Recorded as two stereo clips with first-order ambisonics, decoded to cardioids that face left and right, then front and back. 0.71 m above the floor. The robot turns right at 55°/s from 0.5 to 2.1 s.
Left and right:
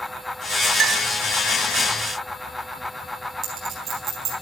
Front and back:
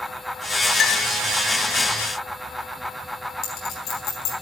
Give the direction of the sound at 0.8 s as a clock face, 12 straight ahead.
2 o'clock.